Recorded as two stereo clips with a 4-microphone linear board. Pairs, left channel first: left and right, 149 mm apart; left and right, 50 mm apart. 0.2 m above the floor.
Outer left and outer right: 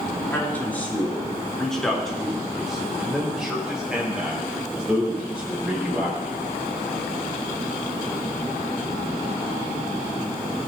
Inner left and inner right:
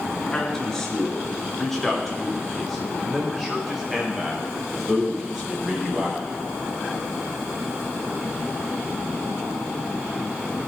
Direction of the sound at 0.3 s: 15° left (ahead or behind).